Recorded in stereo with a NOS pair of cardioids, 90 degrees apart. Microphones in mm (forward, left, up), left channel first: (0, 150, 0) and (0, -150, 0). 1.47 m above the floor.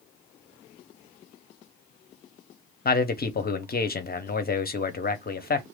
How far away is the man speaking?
About 1.0 m.